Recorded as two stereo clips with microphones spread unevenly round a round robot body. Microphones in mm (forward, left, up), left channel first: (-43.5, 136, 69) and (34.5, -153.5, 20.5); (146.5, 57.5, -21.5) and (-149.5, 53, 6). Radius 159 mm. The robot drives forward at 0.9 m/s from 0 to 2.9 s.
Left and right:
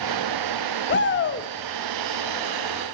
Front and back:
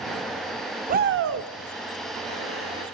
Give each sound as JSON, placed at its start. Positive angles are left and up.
{"t": 0.9, "sound": "a shout", "azimuth_deg": 135, "distance_m": 0.8}